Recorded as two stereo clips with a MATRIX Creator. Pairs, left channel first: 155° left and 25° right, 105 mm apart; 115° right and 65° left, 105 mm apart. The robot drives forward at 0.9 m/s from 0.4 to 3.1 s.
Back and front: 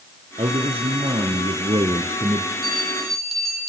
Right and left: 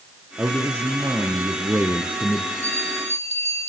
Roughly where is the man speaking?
Ahead.